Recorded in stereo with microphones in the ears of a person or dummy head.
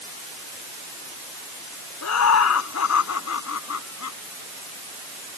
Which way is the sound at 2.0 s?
85° left.